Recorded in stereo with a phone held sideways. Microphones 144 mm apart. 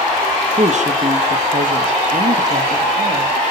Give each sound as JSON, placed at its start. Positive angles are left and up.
{"t": 0.6, "sound": "a woman speaking", "side_deg": -50, "distance_m": 2.0}